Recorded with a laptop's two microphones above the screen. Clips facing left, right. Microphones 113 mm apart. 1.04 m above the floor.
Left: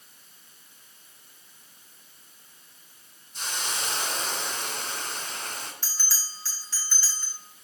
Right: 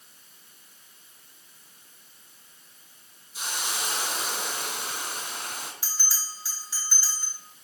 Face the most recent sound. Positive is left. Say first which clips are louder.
# right 2 dB
turn(degrees=-15)  # may be behind; listen again after turning